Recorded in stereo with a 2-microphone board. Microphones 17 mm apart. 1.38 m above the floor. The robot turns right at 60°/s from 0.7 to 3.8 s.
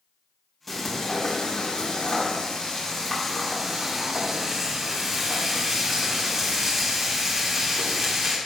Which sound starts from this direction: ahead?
Frying, at 0.7 s.